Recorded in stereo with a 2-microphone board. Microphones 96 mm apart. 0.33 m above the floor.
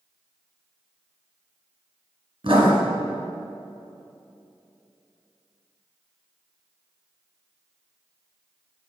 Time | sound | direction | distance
2.4 | writing | 60° right (ahead or behind) | 2 m